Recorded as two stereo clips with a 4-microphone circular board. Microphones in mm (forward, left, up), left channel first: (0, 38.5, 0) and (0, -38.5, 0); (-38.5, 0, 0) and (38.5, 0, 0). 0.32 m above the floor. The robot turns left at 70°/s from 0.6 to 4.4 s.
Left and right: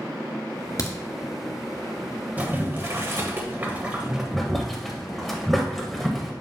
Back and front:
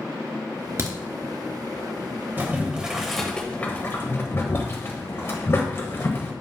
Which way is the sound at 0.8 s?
50° left.